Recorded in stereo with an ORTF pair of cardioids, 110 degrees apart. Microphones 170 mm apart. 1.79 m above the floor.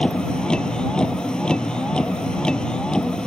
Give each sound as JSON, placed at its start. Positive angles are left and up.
{"t": 0.0, "sound": "a vehicle", "azimuth_deg": 5}